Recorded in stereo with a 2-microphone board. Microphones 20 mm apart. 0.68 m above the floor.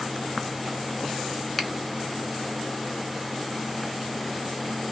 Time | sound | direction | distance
1.6 | a finger snap | 5° left (ahead or behind) | 0.9 m